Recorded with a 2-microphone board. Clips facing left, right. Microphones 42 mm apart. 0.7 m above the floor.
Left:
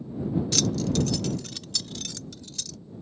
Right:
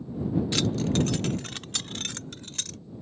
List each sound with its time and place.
0.5 s keys jangling: 25° right (ahead or behind); by 2.8 s 45° right (ahead or behind)